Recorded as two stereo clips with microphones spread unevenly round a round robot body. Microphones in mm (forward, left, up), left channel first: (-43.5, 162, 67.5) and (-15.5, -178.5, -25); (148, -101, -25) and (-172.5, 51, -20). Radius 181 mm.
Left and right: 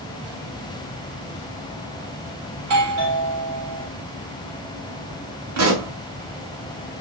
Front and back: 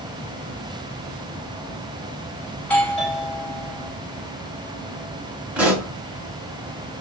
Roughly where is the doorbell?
Right.